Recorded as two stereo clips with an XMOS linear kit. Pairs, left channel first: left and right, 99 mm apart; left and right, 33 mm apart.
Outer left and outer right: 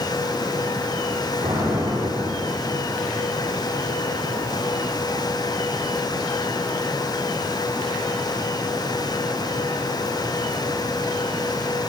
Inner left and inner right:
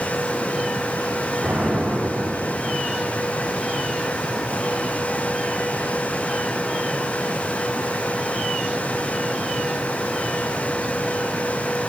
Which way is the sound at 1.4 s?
80° right.